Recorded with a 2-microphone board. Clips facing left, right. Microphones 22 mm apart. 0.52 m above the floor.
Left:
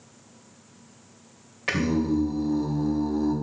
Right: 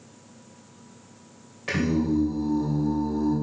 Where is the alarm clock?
No alarm clock in this recording.